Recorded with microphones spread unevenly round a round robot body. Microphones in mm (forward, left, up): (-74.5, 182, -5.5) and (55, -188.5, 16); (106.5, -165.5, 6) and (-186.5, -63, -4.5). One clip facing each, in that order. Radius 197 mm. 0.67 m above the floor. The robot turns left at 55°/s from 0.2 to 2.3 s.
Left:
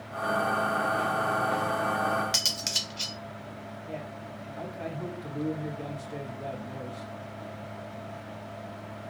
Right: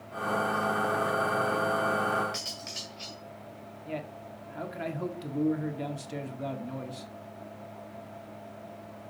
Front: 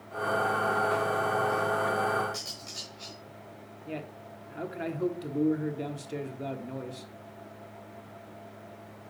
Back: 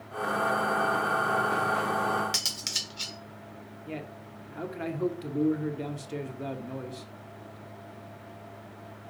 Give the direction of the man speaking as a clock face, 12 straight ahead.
4 o'clock.